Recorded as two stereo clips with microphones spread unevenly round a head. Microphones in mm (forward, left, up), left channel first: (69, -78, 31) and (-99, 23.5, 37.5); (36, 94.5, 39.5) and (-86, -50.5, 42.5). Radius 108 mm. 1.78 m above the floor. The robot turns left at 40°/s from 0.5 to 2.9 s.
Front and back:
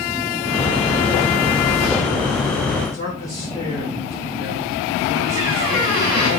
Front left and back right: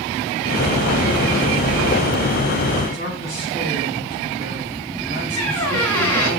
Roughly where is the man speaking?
Left.